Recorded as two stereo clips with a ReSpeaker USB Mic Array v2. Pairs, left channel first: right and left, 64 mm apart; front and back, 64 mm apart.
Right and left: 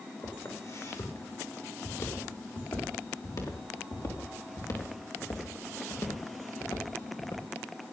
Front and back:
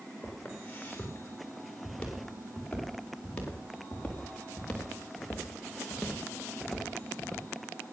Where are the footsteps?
70° right, 7.5 m; by 7.5 s 90° right, 3.5 m.